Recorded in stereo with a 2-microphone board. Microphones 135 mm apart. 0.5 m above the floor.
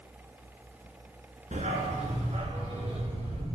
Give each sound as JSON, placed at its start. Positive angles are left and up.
{"t": 1.5, "sound": "a dog barking", "side_deg": -60, "distance_m": 3.0}